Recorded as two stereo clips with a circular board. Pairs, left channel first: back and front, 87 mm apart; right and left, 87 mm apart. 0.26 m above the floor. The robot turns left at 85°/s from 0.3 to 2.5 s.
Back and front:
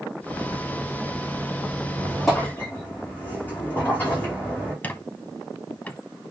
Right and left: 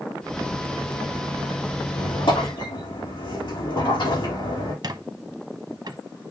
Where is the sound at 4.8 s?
115° left, 0.7 m.